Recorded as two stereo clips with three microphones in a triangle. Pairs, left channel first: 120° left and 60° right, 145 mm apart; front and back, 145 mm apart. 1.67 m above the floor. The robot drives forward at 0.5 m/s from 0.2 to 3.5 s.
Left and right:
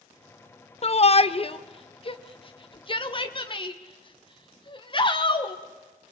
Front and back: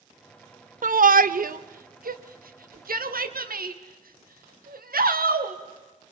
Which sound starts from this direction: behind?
A shout, at 0.8 s.